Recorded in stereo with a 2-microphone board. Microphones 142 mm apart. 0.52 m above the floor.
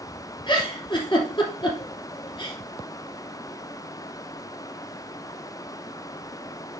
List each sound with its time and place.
0.5 s a giggle: 35° left (ahead or behind), 3 m